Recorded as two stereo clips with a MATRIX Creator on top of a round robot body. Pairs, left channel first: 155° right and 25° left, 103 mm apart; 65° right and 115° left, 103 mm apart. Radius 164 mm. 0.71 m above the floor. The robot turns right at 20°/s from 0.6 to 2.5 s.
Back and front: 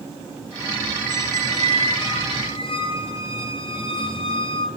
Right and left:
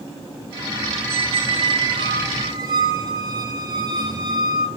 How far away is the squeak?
About 1.6 m.